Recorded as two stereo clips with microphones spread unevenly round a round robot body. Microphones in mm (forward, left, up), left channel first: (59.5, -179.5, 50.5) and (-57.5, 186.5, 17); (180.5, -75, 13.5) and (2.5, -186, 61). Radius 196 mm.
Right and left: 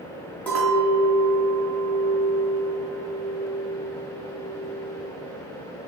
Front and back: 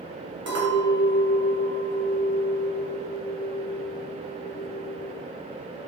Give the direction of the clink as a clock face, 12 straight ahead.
5 o'clock.